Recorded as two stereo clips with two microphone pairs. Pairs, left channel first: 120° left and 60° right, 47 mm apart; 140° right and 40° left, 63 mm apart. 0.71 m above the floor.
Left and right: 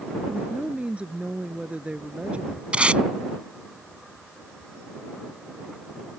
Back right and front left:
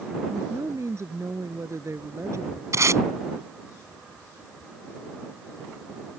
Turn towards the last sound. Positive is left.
turn(degrees=0)